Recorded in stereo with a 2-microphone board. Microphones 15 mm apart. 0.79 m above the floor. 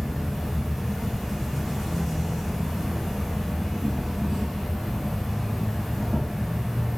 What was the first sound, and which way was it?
An insect, 20° right (ahead or behind).